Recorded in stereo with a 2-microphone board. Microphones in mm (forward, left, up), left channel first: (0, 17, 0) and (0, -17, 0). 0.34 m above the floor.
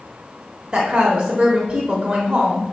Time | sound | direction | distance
0.7 | a woman speaking | 25° right (ahead or behind) | 1.0 m